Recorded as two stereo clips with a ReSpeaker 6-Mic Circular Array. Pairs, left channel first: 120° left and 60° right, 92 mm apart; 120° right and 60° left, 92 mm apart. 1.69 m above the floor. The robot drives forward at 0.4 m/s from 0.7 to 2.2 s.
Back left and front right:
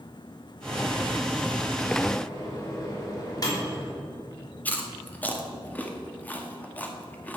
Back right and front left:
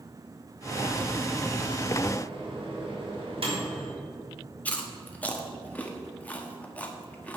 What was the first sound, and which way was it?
A microwave, 75° left.